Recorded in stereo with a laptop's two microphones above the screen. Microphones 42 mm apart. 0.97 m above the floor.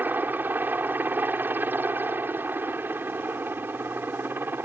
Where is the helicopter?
45° right (ahead or behind); by 4.7 s 50° right (ahead or behind).